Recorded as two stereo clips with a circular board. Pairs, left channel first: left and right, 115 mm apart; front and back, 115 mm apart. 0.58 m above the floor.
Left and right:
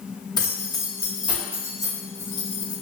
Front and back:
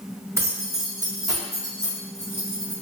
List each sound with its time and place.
0.4 s keys jangling: 120° left, 0.6 m; by 2.7 s 105° right, 1.8 m